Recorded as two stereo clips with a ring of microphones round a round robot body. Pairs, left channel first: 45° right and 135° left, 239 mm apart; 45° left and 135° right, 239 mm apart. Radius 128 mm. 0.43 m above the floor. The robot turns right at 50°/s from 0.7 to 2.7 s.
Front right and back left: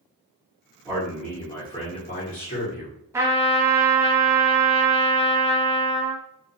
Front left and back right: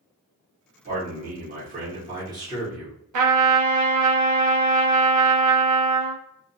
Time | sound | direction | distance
0.8 | a man speaking | 145° right | 1.0 m
3.1 | a trumpet | 145° right | 0.5 m